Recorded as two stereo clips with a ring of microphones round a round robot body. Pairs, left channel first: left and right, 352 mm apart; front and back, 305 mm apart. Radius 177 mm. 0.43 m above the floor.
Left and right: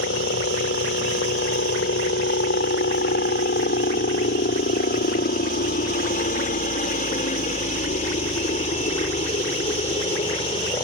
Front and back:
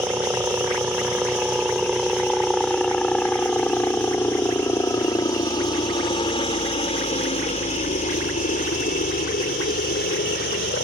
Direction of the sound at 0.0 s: 105° left.